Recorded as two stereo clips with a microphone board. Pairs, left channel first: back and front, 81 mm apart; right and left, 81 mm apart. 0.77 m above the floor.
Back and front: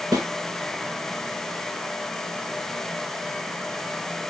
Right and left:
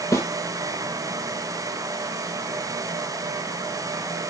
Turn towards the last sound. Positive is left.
turn(degrees=-40)